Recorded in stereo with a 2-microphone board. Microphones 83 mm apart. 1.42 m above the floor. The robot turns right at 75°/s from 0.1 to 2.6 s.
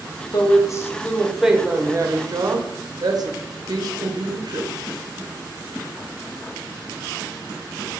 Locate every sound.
0.3 s a woman speaking: 105° left, 0.6 m; by 4.7 s 85° right, 0.6 m